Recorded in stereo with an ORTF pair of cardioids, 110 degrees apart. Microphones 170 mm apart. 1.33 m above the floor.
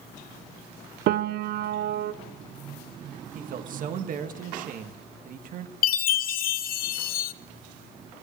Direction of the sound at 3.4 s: 55° right.